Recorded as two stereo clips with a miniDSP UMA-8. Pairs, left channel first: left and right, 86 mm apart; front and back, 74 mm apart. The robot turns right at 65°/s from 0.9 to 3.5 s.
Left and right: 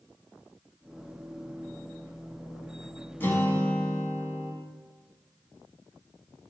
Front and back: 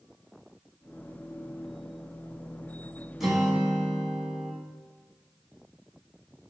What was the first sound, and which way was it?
A guitar, 100° left.